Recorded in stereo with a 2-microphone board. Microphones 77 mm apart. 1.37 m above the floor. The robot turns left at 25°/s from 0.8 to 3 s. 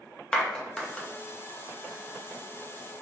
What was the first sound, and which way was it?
A clap, 10° left (ahead or behind).